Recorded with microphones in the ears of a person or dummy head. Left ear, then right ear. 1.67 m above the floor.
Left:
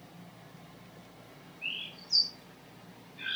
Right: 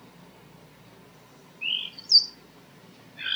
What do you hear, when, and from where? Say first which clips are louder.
1.6 s a bird: right 8 dB; 40° right (ahead or behind), 5 m